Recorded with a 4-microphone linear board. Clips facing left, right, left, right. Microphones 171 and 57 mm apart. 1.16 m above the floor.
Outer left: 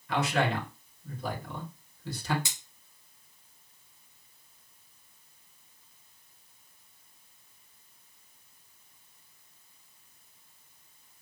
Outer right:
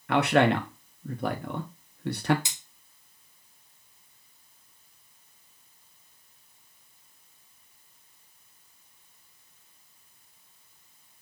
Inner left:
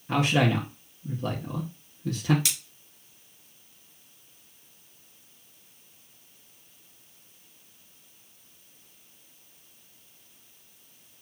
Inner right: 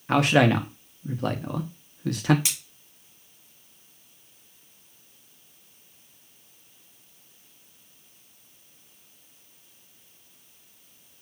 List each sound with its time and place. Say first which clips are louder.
0.1 s a man speaking: outer right 7 dB, inner right 4 dB; 65° right (ahead or behind), 0.8 m
2.5 s scissors: outer left 1 dB, even; 20° right (ahead or behind), 2.5 m